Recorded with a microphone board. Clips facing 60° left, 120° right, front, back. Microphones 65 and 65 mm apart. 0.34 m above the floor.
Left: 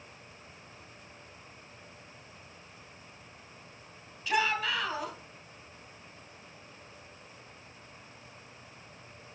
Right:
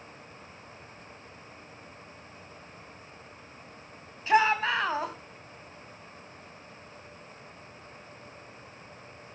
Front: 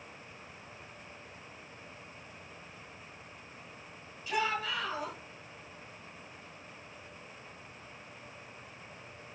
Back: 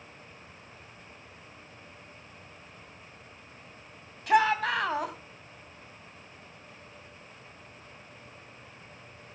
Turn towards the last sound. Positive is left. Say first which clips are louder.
# right 6 dB, back 9 dB
turn(degrees=-170)